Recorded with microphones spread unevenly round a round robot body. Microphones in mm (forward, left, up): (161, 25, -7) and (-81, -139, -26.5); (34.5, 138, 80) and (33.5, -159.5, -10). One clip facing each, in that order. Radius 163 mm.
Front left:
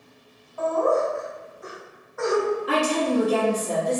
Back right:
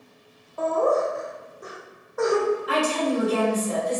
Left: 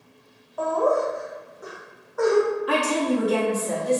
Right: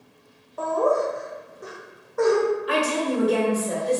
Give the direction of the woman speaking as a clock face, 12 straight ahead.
10 o'clock.